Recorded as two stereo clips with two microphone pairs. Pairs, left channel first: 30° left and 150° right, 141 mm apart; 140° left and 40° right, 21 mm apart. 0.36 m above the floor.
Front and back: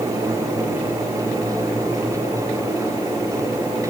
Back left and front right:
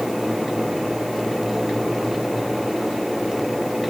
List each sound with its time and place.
Only background noise.